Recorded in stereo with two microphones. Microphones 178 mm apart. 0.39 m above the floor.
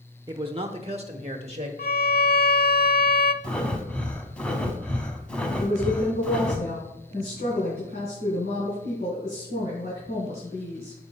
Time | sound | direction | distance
0.3 | a man speaking | 25° right (ahead or behind) | 0.8 m
1.8 | a violin | 65° left (ahead or behind) | 0.6 m
3.4 | breathing | 5° left (ahead or behind) | 1.1 m
5.6 | a woman speaking | 70° left (ahead or behind) | 4.5 m